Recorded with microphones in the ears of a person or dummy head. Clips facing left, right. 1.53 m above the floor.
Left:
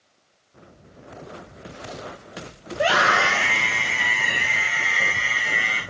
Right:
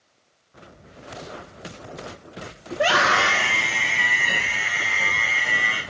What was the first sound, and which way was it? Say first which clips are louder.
A scream: even; centre (ahead or behind).